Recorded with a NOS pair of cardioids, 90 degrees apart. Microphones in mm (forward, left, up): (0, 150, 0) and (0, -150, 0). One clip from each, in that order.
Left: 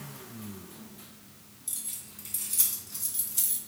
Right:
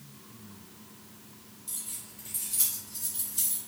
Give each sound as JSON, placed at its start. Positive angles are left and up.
{"t": 1.7, "sound": "keys jangling", "azimuth_deg": 40, "distance_m": 1.4}